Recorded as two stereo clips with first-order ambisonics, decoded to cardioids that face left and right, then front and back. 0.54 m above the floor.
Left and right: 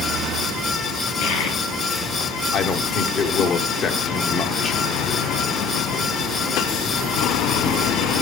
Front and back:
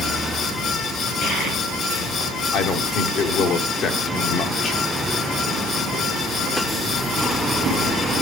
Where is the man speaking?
35° left, 1.0 m.